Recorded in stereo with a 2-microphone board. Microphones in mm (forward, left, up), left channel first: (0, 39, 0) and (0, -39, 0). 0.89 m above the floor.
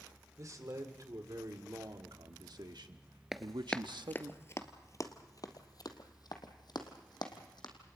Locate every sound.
0.4 s a man speaking: 45° right (ahead or behind), 2.5 m; by 4.3 s 65° right (ahead or behind), 1.1 m
3.3 s running footsteps: 5° right (ahead or behind), 1.0 m; by 7.7 s 65° left (ahead or behind), 3 m